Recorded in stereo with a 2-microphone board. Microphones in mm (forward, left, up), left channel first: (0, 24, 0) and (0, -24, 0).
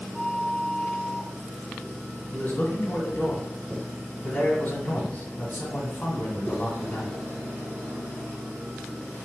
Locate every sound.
0.1 s a flute: centre (ahead or behind), 0.8 m
2.3 s a man speaking: 35° left (ahead or behind), 1.9 m